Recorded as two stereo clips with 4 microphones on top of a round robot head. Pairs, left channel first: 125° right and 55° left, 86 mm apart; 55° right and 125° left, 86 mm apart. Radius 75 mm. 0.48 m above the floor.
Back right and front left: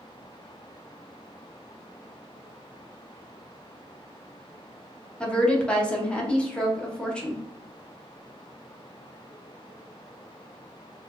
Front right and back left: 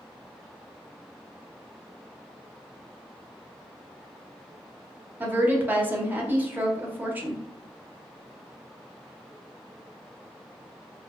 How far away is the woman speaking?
About 1.0 m.